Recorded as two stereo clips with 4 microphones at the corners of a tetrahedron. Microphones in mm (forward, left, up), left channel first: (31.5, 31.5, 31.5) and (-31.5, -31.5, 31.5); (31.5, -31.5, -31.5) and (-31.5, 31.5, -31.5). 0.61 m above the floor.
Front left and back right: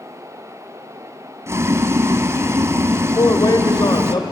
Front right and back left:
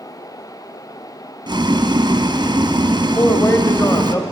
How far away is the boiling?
About 1.7 m.